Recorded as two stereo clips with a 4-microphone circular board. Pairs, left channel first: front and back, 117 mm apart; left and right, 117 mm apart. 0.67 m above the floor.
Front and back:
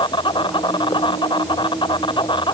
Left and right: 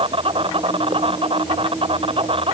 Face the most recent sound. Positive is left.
turn(degrees=-50)